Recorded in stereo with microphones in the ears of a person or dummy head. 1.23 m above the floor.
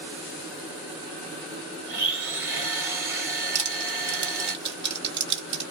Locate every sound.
1.9 s a blender: 10° right (ahead or behind), 1.1 m
3.5 s crushing: 30° right (ahead or behind), 1.4 m